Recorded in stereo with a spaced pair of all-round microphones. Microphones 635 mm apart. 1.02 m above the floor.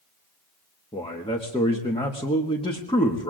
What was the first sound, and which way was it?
A man speaking, 10° left (ahead or behind).